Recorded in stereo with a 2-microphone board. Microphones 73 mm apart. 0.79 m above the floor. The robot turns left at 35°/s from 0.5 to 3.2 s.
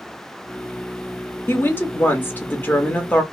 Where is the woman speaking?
25° left (ahead or behind), 1.0 m; by 3.2 s 15° left (ahead or behind), 1.0 m.